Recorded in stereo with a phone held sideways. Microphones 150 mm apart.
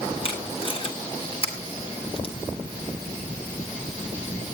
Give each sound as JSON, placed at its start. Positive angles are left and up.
{"t": 0.2, "sound": "tape being pulled", "side_deg": 40, "distance_m": 5.0}